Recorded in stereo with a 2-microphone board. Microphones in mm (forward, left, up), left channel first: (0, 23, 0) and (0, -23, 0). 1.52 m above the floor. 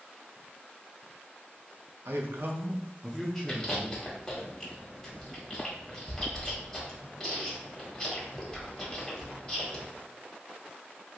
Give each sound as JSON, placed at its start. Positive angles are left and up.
{"t": 2.0, "sound": "a man speaking", "side_deg": -70, "distance_m": 0.7}
{"t": 3.5, "sound": "chewing", "side_deg": 10, "distance_m": 1.2}